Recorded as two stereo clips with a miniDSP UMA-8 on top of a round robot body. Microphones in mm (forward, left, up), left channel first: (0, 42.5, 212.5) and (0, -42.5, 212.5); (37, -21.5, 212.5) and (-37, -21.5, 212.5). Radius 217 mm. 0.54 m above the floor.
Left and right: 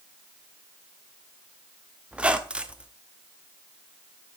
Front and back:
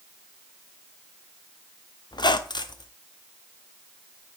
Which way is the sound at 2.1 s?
10° right.